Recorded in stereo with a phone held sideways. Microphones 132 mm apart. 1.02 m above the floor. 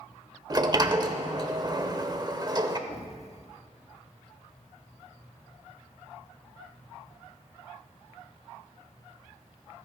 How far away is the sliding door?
About 0.9 m.